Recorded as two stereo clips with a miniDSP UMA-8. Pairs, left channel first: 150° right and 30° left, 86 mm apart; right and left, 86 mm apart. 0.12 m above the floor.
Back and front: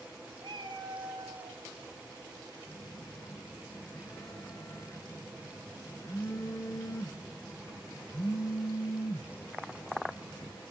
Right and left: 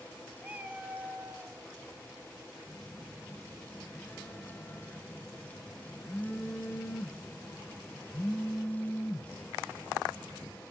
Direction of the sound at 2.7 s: 145° right.